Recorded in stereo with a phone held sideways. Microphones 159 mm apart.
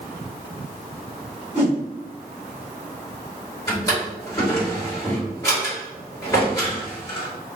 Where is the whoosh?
10° right (ahead or behind), 1.3 m.